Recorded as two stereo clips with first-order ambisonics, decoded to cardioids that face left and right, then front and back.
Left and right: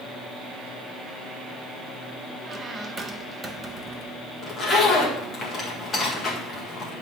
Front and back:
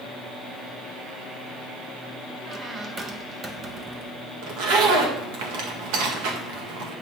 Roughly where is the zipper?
Behind.